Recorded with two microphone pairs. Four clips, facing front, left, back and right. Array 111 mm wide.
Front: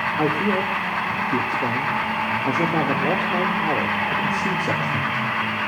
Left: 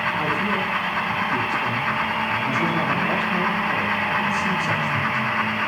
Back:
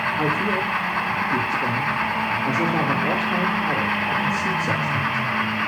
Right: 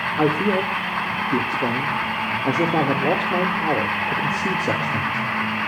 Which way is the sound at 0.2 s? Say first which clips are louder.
Right 4 dB, front 3 dB; 75° right.